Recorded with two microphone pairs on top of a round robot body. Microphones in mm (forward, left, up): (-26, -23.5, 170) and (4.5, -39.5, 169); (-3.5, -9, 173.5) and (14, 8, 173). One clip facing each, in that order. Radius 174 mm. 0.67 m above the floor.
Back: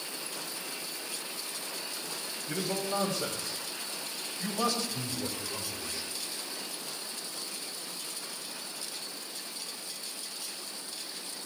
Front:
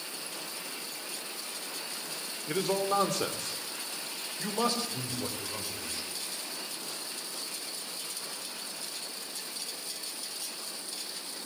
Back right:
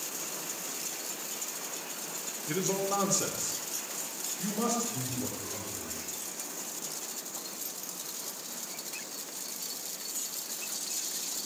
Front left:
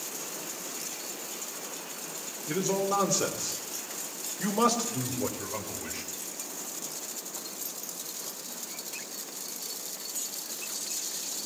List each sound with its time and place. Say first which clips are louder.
2.5 s a man speaking: front 4 dB, front left 3 dB; 50° right, 2.5 m; by 6.1 s 50° left, 4.5 m